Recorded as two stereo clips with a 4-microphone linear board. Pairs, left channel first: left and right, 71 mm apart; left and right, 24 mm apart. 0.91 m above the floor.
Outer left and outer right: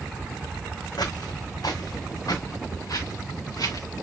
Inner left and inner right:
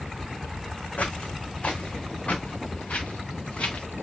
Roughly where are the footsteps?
Left.